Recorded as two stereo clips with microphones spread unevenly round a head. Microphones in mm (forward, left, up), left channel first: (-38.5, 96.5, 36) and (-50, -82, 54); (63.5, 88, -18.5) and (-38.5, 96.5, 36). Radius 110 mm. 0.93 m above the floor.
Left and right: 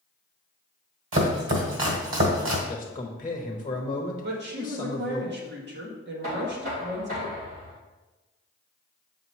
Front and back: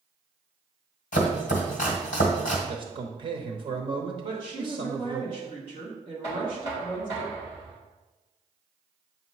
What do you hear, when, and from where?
1.1 s chopping: 60° right, 1.4 m
2.7 s a man speaking: 145° left, 1.0 m
4.2 s a woman speaking: 110° right, 1.6 m
6.2 s knocking: 130° right, 3 m